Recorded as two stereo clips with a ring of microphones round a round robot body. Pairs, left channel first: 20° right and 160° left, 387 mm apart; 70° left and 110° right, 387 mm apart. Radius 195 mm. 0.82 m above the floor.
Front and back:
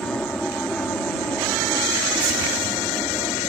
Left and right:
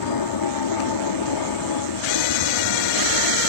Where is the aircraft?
65° left.